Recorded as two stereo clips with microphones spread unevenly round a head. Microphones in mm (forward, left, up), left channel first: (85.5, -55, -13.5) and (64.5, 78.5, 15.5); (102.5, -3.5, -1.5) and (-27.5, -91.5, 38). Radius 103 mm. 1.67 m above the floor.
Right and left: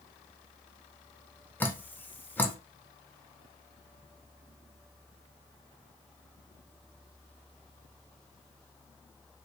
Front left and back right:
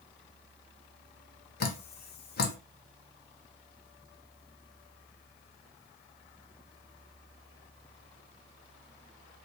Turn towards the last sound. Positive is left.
turn(degrees=5)